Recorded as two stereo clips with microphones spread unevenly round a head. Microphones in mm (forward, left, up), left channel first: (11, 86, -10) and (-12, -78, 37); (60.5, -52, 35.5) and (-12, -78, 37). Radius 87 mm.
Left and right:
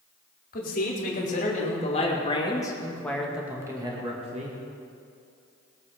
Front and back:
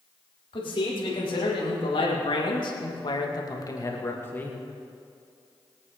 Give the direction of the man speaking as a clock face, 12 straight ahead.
11 o'clock.